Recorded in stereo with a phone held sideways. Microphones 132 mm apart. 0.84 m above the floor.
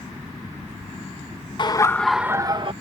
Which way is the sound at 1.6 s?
40° left (ahead or behind).